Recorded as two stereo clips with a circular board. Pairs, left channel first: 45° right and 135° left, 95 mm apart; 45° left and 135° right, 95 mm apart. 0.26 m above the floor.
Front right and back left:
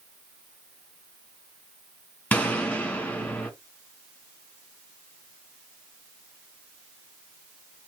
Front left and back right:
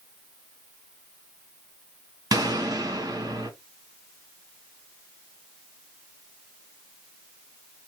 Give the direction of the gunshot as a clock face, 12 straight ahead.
4 o'clock.